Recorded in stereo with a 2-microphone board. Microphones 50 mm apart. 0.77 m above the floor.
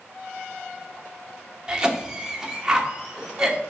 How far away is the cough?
About 0.9 m.